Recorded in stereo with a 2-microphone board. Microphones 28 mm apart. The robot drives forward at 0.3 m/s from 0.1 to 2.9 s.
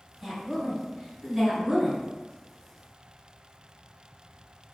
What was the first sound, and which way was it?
A woman speaking, 10° right (ahead or behind).